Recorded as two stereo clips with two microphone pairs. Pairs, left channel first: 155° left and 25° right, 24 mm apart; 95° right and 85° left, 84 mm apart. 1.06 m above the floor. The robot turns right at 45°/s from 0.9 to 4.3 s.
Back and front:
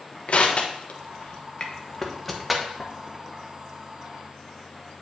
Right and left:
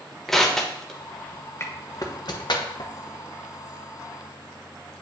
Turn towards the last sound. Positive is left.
turn(degrees=-25)